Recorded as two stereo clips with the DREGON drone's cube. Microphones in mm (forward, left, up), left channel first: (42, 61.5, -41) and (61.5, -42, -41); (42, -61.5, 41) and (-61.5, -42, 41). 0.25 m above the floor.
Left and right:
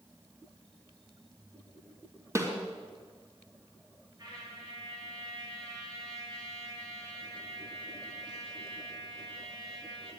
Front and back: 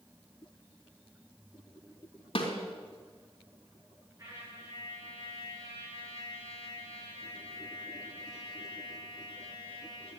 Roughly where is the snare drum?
Ahead.